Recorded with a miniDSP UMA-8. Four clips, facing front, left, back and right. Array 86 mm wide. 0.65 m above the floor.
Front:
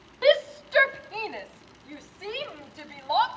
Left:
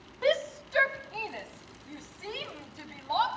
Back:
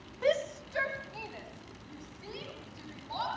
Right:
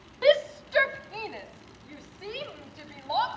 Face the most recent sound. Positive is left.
turn(degrees=-15)